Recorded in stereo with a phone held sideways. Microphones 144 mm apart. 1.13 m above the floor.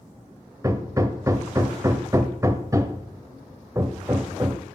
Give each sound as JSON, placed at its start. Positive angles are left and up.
{"t": 0.6, "sound": "hammering", "side_deg": -20, "distance_m": 0.9}